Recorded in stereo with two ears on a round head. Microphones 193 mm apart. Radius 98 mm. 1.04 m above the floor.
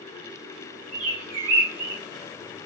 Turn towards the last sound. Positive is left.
turn(degrees=-65)  # may be behind; listen again after turning